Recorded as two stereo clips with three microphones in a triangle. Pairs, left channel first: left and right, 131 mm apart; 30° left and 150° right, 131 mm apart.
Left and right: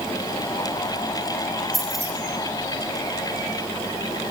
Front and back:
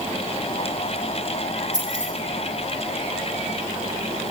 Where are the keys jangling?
Straight behind, 8 m.